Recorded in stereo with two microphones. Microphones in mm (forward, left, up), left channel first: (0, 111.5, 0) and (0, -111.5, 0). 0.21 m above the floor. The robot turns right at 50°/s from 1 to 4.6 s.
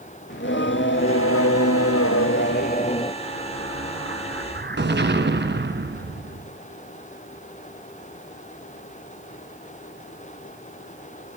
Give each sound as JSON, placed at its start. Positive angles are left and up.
{"t": 0.3, "sound": "singing", "azimuth_deg": 55, "distance_m": 0.6}
{"t": 3.2, "sound": "an explosion", "azimuth_deg": -125, "distance_m": 1.6}